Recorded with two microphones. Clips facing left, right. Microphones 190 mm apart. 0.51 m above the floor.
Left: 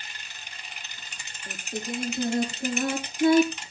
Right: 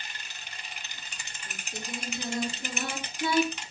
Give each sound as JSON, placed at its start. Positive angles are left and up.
{"t": 1.5, "sound": "singing", "side_deg": 55, "distance_m": 6.5}